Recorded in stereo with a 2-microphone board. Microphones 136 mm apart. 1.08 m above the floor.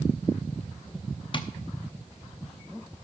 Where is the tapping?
35° left (ahead or behind), 0.8 m.